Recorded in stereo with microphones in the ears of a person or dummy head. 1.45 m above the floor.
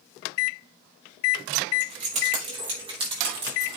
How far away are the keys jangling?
About 3.5 m.